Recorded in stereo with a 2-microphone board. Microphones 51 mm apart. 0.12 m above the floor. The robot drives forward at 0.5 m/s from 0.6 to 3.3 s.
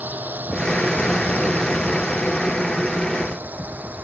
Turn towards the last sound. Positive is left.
turn(degrees=-35)  # may be behind; listen again after turning